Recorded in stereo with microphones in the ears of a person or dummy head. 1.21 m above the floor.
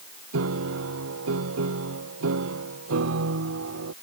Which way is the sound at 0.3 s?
70° right (ahead or behind).